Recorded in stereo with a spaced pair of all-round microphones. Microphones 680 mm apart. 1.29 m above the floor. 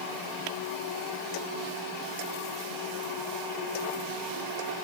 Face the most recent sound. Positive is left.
No sound to turn to.